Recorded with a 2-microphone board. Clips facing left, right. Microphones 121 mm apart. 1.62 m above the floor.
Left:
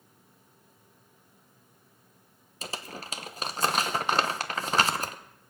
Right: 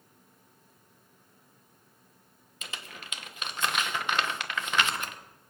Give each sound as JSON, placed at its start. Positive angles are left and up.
{"t": 2.6, "sound": "crumpling", "side_deg": 35, "distance_m": 1.0}